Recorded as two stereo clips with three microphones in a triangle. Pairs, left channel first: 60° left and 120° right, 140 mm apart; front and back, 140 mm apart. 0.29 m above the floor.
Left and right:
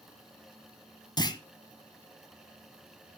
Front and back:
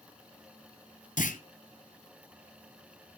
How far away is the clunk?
About 1.1 m.